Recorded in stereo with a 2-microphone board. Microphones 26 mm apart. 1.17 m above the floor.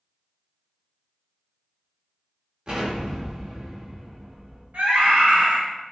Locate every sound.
2.7 s an explosion: 35° right (ahead or behind), 1.1 m
4.7 s a scream: 85° right, 1.1 m